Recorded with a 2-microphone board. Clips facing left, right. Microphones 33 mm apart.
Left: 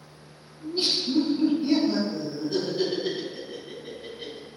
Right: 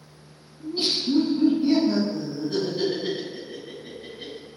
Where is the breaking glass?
I don't hear breaking glass.